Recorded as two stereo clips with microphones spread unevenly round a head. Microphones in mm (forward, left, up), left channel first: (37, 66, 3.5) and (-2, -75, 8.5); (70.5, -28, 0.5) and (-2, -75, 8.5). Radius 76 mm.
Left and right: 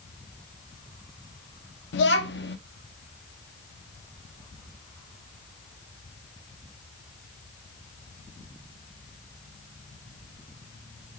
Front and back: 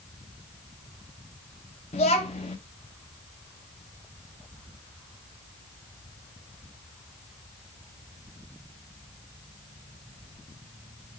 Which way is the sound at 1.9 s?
70° left.